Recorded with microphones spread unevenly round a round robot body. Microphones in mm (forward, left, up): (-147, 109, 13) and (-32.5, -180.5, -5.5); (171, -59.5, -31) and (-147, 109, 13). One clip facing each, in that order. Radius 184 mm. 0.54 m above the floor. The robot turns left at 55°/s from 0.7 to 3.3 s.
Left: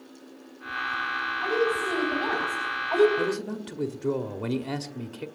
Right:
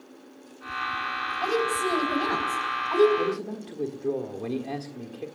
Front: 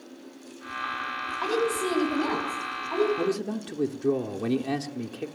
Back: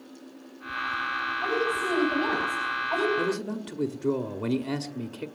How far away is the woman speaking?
About 4.5 m.